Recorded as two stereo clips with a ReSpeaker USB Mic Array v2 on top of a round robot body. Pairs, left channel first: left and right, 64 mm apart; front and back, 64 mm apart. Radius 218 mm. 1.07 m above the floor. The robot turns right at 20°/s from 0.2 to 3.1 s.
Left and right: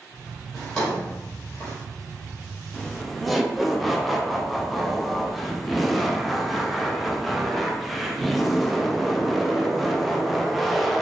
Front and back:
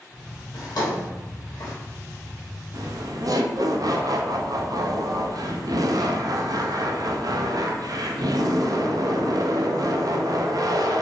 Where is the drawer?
5° left, 1.0 m; by 1.7 s 30° left, 1.0 m.